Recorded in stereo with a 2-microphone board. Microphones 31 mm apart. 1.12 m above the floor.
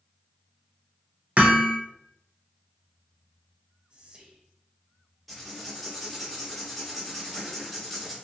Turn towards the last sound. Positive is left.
turn(degrees=0)  # may be behind; listen again after turning